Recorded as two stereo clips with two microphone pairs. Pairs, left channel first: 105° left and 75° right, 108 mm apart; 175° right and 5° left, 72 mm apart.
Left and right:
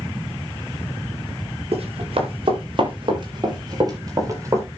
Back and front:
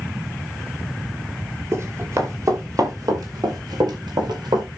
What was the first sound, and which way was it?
Running footsteps, 50° right.